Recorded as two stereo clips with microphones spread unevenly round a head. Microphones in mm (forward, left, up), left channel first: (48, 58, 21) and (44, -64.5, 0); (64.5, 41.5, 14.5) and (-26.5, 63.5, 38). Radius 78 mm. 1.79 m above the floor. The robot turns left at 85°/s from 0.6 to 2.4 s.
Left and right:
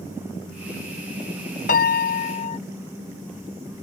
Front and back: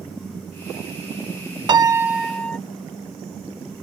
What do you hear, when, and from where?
1.7 s a piano: 130° left; by 2.6 s 70° left